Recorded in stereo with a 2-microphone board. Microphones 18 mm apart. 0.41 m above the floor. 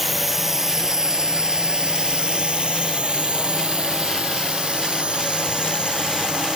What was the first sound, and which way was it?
A drone, 10° right (ahead or behind).